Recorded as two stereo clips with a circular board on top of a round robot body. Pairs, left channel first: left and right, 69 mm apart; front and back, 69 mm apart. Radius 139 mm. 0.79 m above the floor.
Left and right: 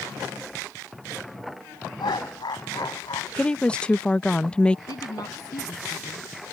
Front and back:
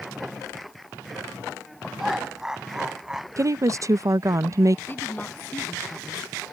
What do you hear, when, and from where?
2.0 s laughter: 95° left; by 3.3 s 100° left
3.4 s a woman speaking: 160° left
4.9 s a woman speaking: 60° left